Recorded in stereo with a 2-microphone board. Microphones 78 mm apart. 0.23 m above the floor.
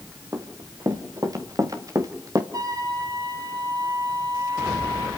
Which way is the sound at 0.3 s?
45° right (ahead or behind).